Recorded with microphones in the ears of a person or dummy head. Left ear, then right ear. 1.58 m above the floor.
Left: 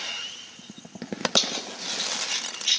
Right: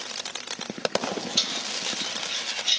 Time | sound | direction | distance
1.4 | keys jangling | 65° left (ahead or behind) | 1.3 m